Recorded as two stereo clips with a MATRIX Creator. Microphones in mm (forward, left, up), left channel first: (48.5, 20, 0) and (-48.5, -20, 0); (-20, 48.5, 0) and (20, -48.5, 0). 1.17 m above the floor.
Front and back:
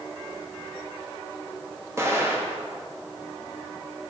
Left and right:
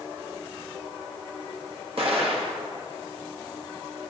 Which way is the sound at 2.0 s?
95° right.